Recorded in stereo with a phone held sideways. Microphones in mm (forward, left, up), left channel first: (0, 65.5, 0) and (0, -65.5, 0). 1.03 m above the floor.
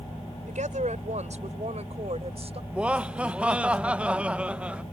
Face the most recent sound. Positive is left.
turn(degrees=-10)  # may be behind; listen again after turning